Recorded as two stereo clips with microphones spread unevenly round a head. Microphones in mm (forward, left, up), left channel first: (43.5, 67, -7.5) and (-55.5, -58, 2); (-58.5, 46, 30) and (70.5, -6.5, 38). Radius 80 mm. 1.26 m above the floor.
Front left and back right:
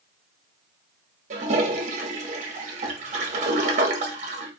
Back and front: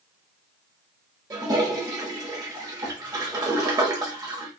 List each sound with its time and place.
1.3 s a toilet flushing: 85° right, 1.0 m